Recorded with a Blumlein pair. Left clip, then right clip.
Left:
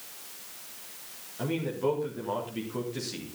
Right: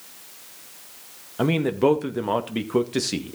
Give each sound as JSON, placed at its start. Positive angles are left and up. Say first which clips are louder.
{"t": 1.4, "sound": "a man speaking", "louder": "right 9 dB", "azimuth_deg": -35, "distance_m": 1.9}